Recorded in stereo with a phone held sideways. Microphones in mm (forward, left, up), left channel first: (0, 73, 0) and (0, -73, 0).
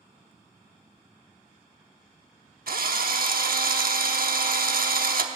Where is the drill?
80° right, 0.8 m.